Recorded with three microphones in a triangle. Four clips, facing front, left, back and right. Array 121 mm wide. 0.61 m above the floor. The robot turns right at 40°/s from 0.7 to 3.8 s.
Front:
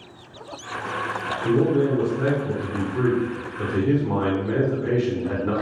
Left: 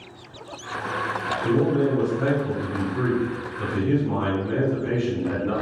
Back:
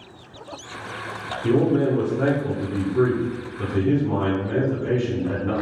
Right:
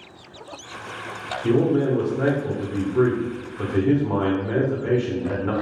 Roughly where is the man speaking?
Behind.